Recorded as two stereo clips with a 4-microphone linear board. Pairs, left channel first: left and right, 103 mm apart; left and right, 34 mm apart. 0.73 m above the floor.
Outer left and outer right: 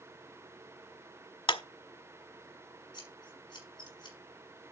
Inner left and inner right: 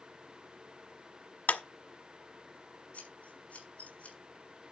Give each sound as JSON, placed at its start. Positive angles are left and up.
{"t": 1.5, "sound": "a clap", "side_deg": 65, "distance_m": 1.3}
{"t": 2.9, "sound": "scissors", "side_deg": 45, "distance_m": 5.5}